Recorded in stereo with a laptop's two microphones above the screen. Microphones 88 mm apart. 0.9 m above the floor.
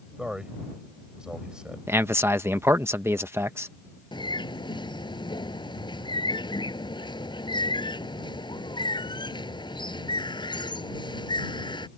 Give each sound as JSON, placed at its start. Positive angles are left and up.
{"t": 0.2, "sound": "a man speaking", "side_deg": -10}
{"t": 1.9, "sound": "a man speaking", "side_deg": -30}
{"t": 4.1, "sound": "a bird", "side_deg": 60}